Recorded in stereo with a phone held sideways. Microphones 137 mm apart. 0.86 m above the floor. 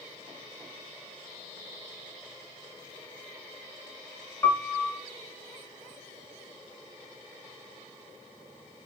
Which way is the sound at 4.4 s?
15° left (ahead or behind).